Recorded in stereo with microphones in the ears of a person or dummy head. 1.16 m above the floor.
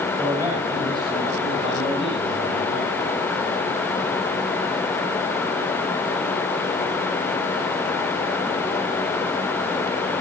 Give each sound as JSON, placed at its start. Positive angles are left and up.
{"t": 0.2, "sound": "a man speaking", "side_deg": -20, "distance_m": 8.0}